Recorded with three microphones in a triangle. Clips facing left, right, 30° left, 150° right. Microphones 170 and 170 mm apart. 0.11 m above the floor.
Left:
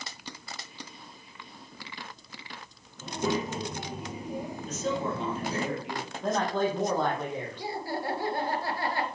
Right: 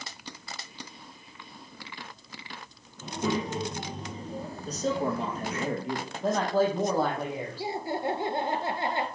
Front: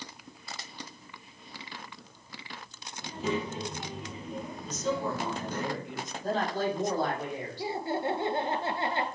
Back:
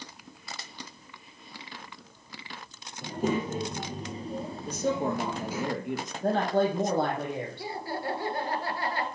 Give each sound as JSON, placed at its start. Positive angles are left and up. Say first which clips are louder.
{"t": 3.0, "sound": "a child speaking", "louder": "even, back 3 dB", "azimuth_deg": 180, "distance_m": 3.0}
{"t": 4.7, "sound": "a man speaking", "louder": "right 3 dB, back 3 dB", "azimuth_deg": -140, "distance_m": 2.5}
{"t": 6.2, "sound": "a man speaking", "louder": "right 3 dB, back 5 dB", "azimuth_deg": -175, "distance_m": 4.0}
{"t": 7.6, "sound": "laughter", "louder": "right 4 dB, front 3 dB", "azimuth_deg": -30, "distance_m": 1.6}